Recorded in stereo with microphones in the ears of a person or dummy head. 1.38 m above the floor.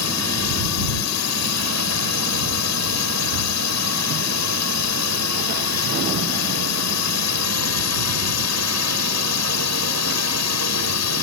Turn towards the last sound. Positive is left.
turn(degrees=80)